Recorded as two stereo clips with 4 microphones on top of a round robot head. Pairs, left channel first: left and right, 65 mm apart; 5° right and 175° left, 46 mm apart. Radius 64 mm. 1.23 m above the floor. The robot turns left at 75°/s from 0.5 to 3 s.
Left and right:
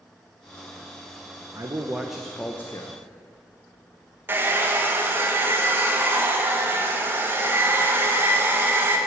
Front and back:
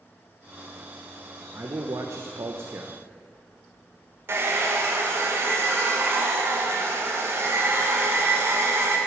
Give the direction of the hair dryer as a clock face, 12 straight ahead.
5 o'clock.